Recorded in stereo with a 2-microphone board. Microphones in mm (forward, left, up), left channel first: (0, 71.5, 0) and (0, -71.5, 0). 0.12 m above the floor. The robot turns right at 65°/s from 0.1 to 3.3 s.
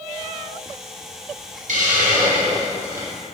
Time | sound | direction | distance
1.7 | a hiss | 105° right | 0.9 m